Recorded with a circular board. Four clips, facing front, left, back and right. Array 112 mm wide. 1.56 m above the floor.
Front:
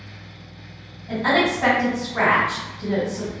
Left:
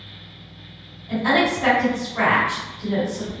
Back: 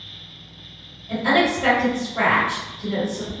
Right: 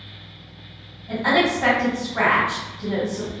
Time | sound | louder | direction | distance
1.1 | a woman speaking | even, back 1 dB | 30° right | 1.5 m